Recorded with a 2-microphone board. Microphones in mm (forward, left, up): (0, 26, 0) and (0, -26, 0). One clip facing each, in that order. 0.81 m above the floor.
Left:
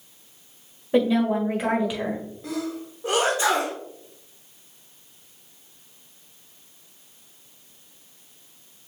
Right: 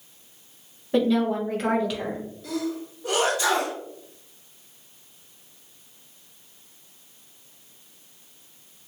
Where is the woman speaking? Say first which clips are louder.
Left 1 dB; 15° left (ahead or behind), 1.5 m.